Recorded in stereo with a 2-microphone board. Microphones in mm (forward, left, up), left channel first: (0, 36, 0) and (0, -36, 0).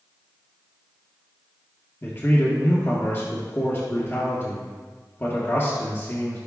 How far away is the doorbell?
No doorbell in this recording.